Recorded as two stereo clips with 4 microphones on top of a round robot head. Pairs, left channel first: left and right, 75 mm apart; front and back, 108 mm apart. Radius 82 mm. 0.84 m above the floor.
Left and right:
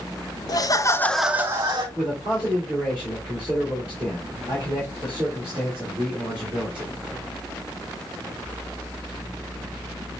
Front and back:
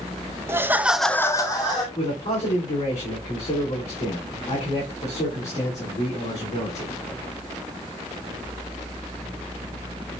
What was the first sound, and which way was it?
Laughter, 115° left.